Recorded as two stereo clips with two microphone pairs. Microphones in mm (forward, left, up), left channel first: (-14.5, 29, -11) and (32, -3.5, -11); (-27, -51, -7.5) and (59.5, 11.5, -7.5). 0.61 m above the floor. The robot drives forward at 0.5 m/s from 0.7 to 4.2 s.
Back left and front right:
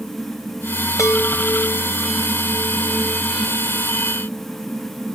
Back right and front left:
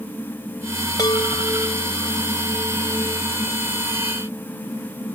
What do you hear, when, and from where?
1.0 s a chime: 160° left, 2 m; by 3.2 s 165° left, 3 m